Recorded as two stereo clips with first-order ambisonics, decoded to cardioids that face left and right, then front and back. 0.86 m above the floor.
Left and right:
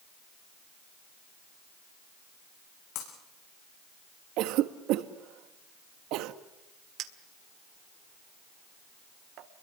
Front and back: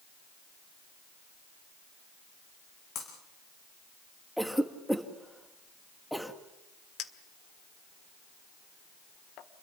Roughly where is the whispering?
I don't hear whispering.